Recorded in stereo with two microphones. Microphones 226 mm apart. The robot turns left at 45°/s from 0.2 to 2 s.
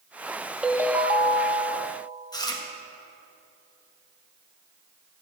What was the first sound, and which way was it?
A ringtone, 5° right.